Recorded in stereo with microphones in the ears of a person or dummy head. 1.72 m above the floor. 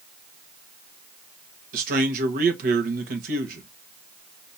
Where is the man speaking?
50° right (ahead or behind), 1.4 m.